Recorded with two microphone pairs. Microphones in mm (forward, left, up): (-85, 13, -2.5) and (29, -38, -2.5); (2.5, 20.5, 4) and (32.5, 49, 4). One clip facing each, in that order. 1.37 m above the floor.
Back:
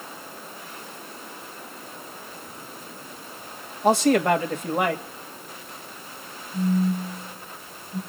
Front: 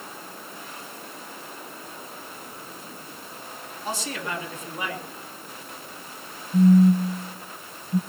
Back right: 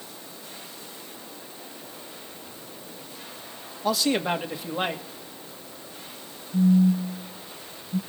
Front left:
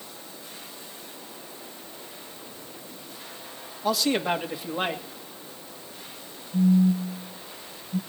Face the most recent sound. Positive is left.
turn(degrees=-55)